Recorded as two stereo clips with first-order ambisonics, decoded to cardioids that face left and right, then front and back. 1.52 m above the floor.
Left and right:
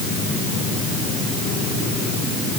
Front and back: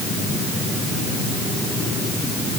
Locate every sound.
Only background noise.